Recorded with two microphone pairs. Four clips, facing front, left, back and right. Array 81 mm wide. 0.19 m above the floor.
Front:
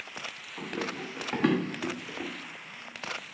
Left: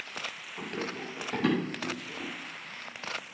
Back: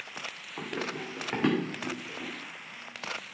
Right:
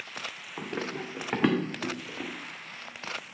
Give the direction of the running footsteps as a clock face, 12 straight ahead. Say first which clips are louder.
Right 2 dB, even; 4 o'clock.